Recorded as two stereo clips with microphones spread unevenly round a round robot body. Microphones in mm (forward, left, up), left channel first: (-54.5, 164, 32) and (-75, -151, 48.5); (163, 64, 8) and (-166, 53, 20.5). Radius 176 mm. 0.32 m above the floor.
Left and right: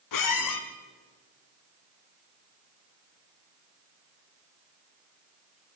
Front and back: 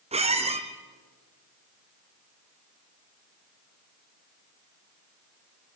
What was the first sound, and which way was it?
A squeak, 110° left.